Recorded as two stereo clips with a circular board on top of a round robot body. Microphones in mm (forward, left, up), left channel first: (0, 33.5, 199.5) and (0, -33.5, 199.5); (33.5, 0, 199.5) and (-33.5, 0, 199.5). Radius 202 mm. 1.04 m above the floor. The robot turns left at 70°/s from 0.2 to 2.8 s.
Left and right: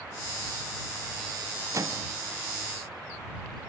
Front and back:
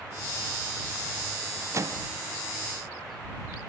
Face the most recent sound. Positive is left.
turn(degrees=155)